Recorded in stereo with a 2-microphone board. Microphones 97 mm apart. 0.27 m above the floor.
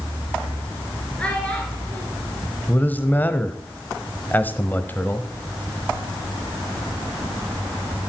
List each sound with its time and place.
1.2 s a child speaking: 10° left (ahead or behind), 3.5 m
2.7 s a man speaking: 20° left (ahead or behind), 1.1 m